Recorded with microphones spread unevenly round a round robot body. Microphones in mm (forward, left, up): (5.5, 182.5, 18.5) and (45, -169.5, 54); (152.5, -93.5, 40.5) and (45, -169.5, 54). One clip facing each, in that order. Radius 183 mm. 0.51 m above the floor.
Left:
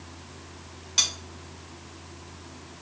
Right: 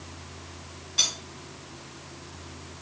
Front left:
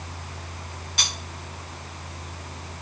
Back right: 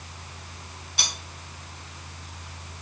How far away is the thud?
No thud in this recording.